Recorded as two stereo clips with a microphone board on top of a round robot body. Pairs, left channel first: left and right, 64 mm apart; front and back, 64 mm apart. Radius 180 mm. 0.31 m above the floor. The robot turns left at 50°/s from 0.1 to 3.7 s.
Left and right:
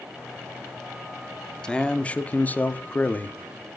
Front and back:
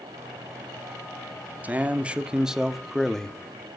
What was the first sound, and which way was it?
A man speaking, 155° left.